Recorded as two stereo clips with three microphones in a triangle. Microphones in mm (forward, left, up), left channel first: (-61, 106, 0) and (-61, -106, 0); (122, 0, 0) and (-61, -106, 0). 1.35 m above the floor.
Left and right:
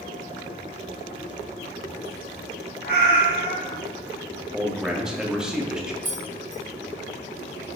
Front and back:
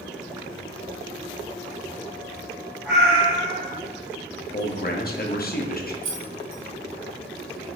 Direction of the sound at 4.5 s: 5° right.